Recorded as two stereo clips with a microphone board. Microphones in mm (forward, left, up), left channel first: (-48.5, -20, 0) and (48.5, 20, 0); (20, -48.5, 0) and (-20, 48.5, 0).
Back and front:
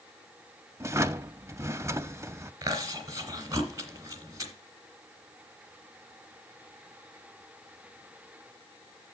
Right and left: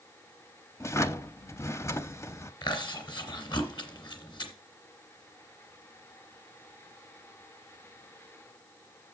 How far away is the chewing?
About 1.9 m.